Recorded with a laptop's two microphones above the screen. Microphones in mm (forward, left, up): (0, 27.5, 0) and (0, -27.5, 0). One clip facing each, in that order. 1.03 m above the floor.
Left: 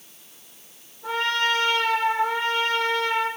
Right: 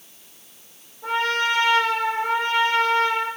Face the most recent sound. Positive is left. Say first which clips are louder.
# right 2 dB
turn(degrees=-85)